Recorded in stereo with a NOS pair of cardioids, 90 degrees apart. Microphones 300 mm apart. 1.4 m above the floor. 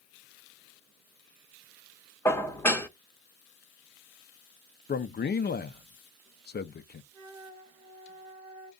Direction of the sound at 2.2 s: 10° left.